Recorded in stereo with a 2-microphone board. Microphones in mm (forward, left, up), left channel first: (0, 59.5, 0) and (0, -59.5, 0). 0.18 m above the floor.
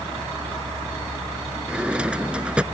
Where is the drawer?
10° right (ahead or behind).